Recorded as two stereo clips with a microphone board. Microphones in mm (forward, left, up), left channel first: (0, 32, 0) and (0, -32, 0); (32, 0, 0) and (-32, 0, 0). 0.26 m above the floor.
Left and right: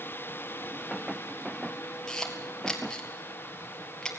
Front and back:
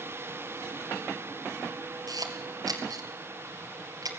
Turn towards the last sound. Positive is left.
turn(degrees=170)